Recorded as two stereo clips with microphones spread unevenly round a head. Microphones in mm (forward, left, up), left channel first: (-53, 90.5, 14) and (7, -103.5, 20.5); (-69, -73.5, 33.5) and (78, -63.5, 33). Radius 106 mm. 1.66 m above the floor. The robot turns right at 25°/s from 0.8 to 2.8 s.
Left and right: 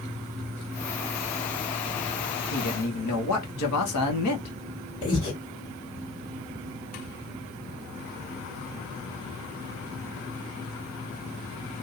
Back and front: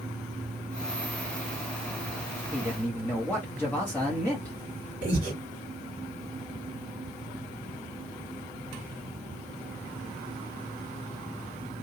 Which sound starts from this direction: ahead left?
Breathing, at 5.0 s.